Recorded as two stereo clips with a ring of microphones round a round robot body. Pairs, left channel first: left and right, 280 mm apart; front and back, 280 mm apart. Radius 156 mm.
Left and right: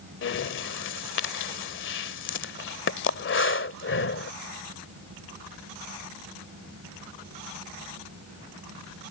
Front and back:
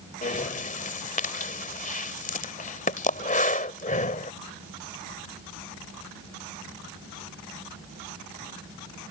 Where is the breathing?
55° left.